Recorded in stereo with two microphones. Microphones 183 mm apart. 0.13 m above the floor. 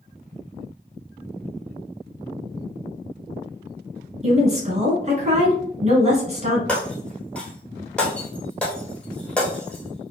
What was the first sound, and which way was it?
A woman speaking, 40° right (ahead or behind).